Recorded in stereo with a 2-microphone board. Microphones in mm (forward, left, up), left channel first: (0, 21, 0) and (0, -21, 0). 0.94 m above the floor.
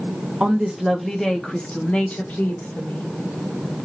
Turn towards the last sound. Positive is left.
turn(degrees=55)  # may be behind; listen again after turning